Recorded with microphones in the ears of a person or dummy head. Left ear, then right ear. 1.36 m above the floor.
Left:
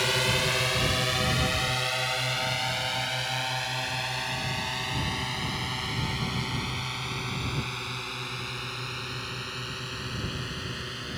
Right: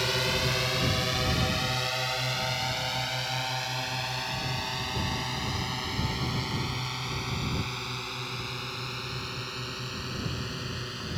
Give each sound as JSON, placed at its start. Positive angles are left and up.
{"t": 0.0, "sound": "a drone", "side_deg": 20}